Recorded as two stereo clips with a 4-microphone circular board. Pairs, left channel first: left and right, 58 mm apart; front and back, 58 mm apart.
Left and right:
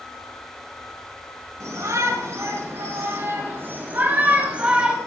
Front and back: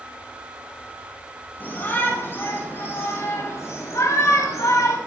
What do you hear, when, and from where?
1.6 s a shout: 55° right, 5.5 m; by 5.0 s 15° right, 3 m